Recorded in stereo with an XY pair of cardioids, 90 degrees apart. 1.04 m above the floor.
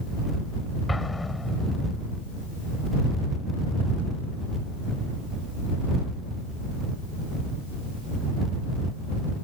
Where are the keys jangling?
No keys jangling in this recording.